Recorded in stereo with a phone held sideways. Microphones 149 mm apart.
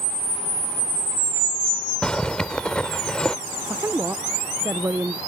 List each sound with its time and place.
2.0 s a zipper: 5° left (ahead or behind)
3.6 s a woman speaking: 15° right (ahead or behind)